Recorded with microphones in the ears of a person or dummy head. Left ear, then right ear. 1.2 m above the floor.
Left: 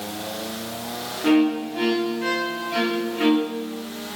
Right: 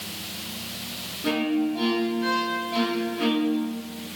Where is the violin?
25° left (ahead or behind), 0.8 m.